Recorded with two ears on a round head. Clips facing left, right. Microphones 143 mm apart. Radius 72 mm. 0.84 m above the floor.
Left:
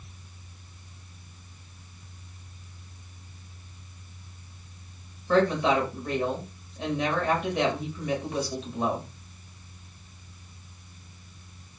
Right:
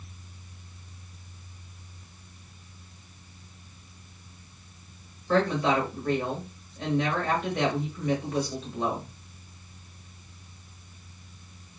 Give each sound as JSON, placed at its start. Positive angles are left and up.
{"t": 5.3, "sound": "a woman speaking", "side_deg": 0, "distance_m": 0.9}